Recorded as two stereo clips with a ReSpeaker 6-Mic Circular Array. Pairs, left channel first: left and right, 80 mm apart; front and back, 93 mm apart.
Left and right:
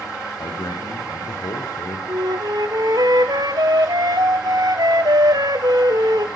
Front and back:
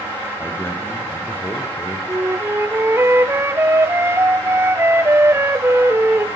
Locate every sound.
0.4 s a man speaking: 60° left, 6 m
2.1 s a flute: 120° right, 1.2 m